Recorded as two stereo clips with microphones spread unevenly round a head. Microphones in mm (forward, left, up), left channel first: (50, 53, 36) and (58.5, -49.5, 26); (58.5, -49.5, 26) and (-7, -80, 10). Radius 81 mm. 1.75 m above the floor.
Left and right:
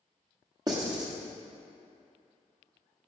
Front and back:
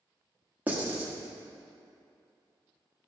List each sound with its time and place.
0.7 s writing: 90° right, 1.3 m